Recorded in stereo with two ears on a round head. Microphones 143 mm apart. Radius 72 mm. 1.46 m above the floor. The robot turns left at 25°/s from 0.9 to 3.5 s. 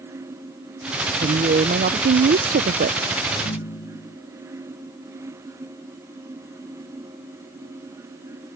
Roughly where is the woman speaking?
Ahead right.